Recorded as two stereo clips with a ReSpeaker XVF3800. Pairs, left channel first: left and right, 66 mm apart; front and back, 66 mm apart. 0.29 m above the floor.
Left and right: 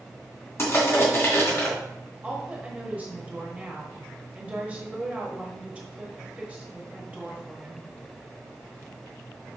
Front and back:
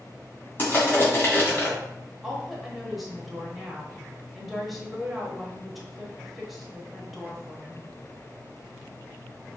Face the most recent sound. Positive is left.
turn(degrees=-90)